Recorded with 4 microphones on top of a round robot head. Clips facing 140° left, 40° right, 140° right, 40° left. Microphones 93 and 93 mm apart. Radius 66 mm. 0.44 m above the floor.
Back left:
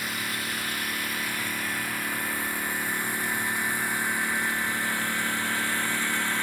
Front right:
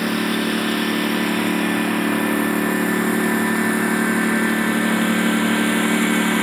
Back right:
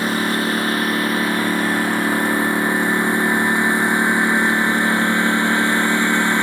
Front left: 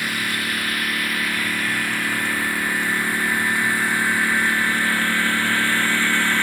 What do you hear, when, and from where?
0.0 s a lawn mower: 75° right; by 6.4 s 65° right